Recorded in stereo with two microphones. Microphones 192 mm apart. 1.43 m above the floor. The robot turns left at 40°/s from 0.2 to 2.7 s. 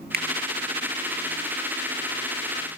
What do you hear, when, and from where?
0.1 s a finger snap: 55° right (ahead or behind), 1.8 m; by 0.2 s 60° right (ahead or behind), 1.8 m